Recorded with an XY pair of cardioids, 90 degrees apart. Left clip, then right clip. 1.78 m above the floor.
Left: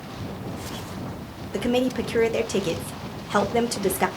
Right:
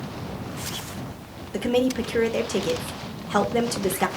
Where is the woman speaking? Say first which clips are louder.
Right 1 dB; 15° left, 0.7 m.